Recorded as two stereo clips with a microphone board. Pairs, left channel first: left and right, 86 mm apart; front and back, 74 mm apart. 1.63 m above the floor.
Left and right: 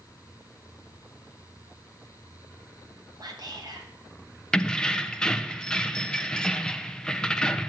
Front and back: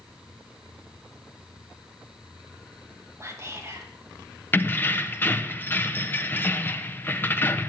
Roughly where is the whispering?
Behind right.